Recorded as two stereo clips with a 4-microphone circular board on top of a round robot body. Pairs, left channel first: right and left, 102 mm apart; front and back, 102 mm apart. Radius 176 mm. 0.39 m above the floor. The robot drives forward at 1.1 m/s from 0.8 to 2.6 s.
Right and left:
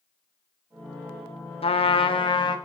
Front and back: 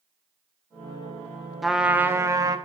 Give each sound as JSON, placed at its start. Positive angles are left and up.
{"t": 1.6, "sound": "a trumpet", "azimuth_deg": -90, "distance_m": 1.4}